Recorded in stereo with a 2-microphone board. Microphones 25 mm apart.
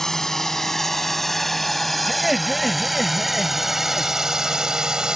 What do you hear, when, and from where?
0.0 s a drone: 15° left (ahead or behind); by 5.2 s 30° right (ahead or behind)
2.1 s laughter: 5° right (ahead or behind)